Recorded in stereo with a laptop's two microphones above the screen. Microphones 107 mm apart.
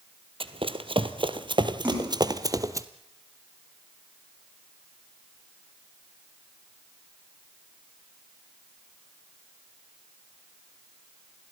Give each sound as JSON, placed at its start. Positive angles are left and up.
{"t": 0.4, "sound": "running footsteps", "side_deg": -55, "distance_m": 1.6}
{"t": 1.8, "sound": "a splash", "side_deg": -20, "distance_m": 9.5}